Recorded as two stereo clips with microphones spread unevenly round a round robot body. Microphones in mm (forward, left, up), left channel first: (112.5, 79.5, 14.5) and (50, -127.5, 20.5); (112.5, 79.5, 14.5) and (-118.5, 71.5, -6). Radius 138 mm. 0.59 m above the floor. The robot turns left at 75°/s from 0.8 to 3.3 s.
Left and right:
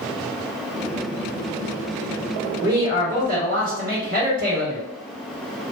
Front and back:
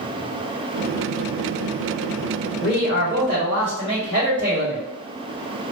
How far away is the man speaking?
About 1.3 m.